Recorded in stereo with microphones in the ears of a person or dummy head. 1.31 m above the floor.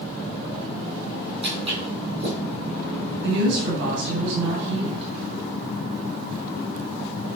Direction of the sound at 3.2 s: 70° right (ahead or behind).